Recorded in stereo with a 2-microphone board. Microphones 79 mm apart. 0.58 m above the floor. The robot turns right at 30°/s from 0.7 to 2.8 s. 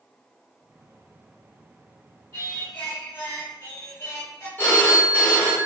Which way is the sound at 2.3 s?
40° left (ahead or behind).